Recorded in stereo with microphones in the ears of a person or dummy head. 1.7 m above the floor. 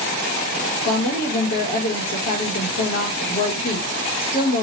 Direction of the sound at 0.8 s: 40° left (ahead or behind).